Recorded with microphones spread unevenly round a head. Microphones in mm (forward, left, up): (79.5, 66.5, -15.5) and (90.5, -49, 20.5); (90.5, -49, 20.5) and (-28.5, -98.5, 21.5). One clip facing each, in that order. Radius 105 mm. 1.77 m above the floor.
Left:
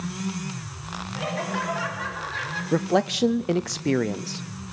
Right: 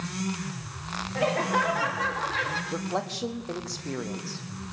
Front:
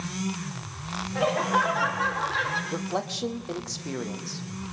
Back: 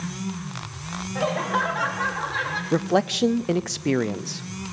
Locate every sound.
1.1 s laughter: 65° right, 3.5 m
2.7 s a man speaking: 150° left, 0.6 m